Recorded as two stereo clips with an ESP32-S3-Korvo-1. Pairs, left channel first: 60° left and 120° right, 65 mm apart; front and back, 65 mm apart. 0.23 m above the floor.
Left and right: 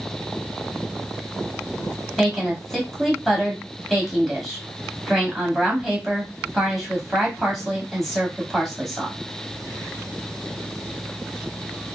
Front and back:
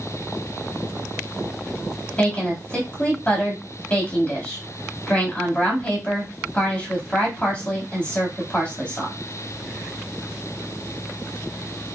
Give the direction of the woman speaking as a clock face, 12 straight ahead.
1 o'clock.